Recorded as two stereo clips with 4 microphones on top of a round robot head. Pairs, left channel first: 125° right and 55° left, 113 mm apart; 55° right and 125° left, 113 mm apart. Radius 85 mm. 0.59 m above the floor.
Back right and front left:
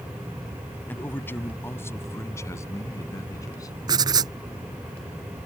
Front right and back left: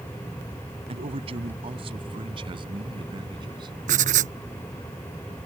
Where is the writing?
115° left.